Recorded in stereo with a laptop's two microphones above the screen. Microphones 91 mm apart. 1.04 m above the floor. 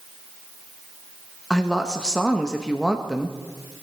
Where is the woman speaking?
10° left (ahead or behind), 1.5 m.